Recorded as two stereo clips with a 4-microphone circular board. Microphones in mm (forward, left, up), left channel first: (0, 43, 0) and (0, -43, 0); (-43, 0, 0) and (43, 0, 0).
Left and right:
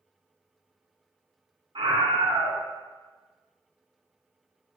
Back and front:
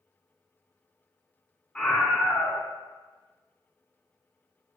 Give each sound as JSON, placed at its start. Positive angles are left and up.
{"t": 1.8, "sound": "a scream", "azimuth_deg": -100, "distance_m": 3.0}